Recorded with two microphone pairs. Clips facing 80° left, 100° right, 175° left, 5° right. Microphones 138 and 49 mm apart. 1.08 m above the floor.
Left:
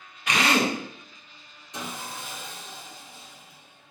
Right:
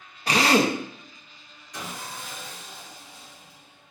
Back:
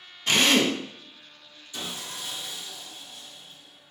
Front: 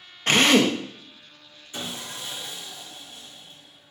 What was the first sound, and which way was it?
A drill, 50° right.